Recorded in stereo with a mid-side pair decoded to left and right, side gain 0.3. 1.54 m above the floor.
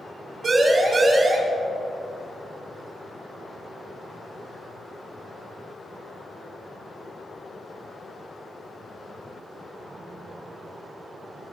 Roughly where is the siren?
Ahead right.